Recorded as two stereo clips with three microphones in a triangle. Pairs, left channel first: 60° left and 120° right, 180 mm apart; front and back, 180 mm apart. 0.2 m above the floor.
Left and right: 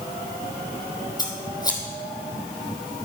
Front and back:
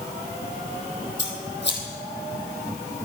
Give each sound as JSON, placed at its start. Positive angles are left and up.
{"t": 1.2, "sound": "scissors", "azimuth_deg": -10, "distance_m": 3.0}